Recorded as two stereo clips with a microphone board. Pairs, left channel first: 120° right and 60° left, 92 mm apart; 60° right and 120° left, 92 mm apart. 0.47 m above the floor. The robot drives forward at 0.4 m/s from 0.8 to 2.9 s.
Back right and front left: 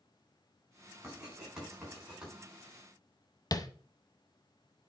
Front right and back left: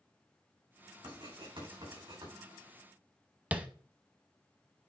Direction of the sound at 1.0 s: 140° left.